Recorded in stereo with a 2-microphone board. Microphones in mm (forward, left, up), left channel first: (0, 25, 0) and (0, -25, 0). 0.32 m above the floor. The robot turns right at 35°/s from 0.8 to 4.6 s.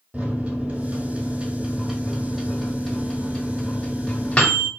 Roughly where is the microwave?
Right.